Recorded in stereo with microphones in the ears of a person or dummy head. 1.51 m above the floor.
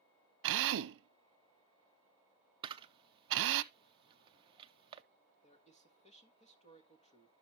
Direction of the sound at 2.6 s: 25° right (ahead or behind).